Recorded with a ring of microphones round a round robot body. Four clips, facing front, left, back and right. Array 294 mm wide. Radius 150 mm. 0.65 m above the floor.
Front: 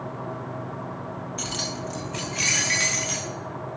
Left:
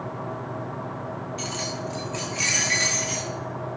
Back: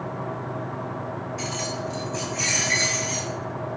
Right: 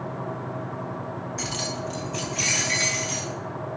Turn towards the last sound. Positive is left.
turn(degrees=0)